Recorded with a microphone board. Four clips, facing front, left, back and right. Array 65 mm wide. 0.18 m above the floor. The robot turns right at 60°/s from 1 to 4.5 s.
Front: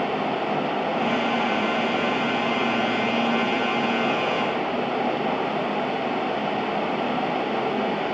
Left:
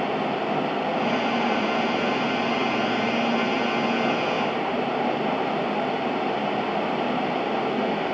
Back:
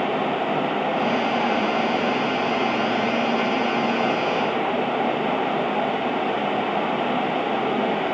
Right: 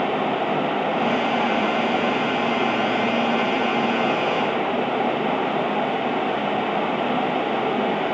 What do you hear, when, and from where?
Only background noise.